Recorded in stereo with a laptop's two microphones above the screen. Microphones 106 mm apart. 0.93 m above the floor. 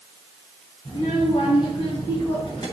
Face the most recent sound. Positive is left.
turn(degrees=35)  # may be behind; listen again after turning